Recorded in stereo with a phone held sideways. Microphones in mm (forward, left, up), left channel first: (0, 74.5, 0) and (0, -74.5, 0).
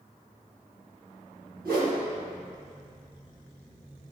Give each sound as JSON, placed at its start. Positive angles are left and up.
{"t": 1.6, "sound": "a whoosh", "side_deg": -80, "distance_m": 1.5}